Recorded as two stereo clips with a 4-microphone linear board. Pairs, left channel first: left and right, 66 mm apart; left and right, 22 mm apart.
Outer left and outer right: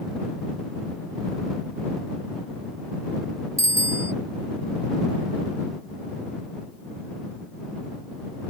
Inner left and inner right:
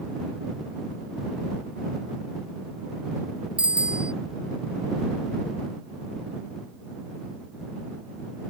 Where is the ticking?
I don't hear ticking.